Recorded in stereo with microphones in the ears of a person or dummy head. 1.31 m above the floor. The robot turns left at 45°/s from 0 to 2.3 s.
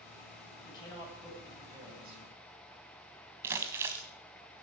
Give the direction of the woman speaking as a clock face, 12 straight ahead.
11 o'clock.